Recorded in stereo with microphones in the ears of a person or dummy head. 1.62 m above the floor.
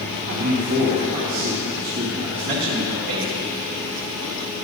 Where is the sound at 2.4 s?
65° right (ahead or behind), 2.5 m.